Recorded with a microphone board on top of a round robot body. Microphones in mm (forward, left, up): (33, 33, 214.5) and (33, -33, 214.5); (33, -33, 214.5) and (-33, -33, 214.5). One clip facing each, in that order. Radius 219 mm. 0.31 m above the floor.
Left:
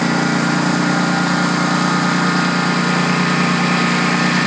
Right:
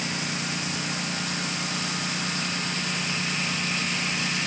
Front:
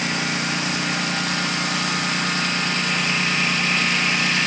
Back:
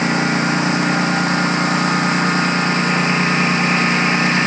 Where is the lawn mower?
120° left.